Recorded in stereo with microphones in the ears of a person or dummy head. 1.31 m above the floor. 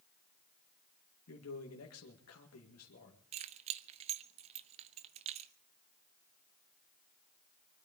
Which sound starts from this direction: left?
A man speaking, at 1.3 s.